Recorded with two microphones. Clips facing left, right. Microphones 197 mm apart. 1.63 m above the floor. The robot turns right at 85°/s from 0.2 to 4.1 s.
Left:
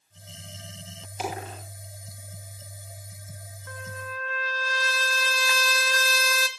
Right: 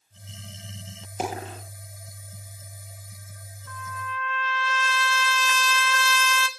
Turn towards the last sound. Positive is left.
turn(degrees=140)